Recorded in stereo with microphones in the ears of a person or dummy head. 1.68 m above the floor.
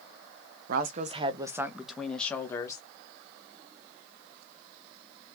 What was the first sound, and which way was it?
A woman speaking, 55° right (ahead or behind).